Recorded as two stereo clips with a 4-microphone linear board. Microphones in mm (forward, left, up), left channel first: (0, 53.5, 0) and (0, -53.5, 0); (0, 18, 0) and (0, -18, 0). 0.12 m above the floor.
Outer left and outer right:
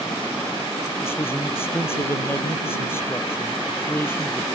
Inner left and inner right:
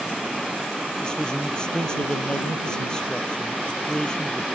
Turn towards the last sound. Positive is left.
turn(degrees=25)  # may be behind; listen again after turning